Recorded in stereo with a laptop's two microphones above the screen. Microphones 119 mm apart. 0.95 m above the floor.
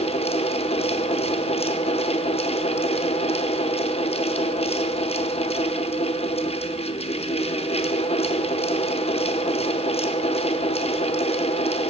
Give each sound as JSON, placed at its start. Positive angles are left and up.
{"t": 0.0, "sound": "a fan", "side_deg": 55, "distance_m": 0.7}